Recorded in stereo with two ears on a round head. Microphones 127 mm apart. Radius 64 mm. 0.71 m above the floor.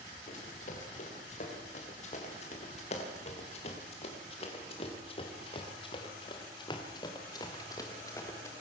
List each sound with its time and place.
0.3 s running footsteps: 60° left (ahead or behind), 7 m; by 8.5 s 20° left (ahead or behind), 3.5 m